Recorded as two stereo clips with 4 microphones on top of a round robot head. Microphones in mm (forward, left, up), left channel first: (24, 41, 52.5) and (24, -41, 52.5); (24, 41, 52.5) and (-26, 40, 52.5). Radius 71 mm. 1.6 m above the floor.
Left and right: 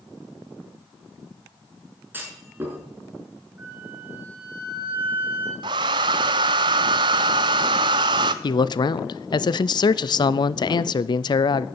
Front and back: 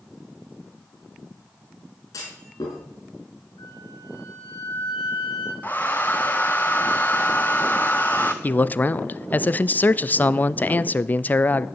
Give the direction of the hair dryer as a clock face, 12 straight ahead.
2 o'clock.